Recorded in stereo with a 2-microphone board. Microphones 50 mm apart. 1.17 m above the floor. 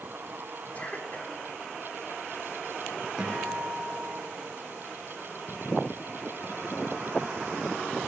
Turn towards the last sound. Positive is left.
turn(degrees=-15)  # may be behind; listen again after turning